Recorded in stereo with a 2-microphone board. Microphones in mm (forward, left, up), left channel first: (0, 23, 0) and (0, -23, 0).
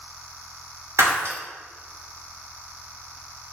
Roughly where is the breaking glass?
Right.